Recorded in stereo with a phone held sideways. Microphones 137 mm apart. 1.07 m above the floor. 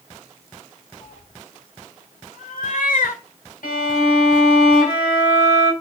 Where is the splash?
I don't hear a splash.